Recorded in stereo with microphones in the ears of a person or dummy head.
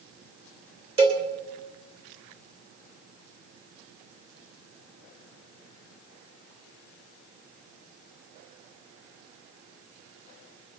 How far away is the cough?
No cough in this recording.